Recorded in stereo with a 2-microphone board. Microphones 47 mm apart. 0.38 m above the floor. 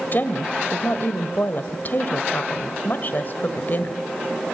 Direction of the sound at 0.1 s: 45° left (ahead or behind).